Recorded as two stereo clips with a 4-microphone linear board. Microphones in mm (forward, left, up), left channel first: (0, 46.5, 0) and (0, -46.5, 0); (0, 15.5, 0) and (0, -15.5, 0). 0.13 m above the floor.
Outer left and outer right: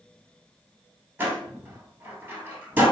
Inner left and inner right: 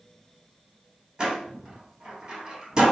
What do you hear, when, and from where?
1.2 s a door slam: 20° right (ahead or behind), 1.8 m